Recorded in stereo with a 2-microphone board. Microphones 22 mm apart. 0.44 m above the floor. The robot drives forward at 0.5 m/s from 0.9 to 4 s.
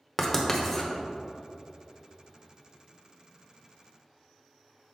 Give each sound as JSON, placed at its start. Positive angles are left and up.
{"t": 0.2, "sound": "writing", "side_deg": 15, "distance_m": 0.9}